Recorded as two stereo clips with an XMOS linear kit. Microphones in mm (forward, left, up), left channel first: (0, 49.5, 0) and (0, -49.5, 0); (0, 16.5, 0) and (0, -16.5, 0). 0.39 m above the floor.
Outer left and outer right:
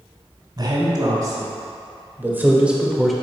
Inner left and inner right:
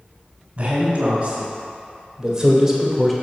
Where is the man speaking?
40° right (ahead or behind), 2.5 m; by 3.1 s centre (ahead or behind), 1.2 m.